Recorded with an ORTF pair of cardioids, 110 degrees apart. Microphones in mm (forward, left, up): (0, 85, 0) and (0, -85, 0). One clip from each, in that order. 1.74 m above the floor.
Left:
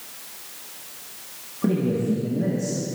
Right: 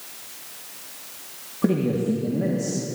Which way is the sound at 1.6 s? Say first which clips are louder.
Right 1 dB; 20° right.